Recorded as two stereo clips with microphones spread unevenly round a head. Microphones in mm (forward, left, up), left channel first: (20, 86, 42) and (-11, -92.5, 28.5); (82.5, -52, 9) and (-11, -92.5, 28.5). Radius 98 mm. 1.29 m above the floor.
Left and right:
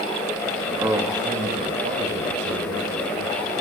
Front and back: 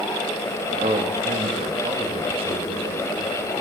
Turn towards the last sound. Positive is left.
turn(degrees=-115)